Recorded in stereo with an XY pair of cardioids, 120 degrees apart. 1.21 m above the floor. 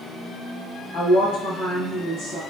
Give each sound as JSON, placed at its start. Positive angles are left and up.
{"t": 0.9, "sound": "a woman speaking", "azimuth_deg": 65, "distance_m": 1.2}